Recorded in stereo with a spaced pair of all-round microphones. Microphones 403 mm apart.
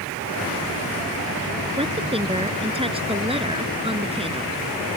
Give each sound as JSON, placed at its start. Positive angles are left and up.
{"t": 1.8, "sound": "a woman speaking", "side_deg": -15}